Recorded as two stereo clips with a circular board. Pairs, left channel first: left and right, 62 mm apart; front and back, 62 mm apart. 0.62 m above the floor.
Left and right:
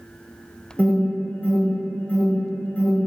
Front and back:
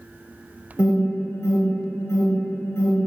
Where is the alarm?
35° left, 1.7 m.